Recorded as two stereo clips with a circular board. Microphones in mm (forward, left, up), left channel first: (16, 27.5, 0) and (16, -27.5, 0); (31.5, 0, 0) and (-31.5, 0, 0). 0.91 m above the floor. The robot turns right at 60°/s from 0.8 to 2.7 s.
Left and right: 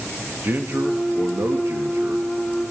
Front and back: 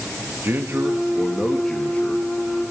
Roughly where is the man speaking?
Behind right.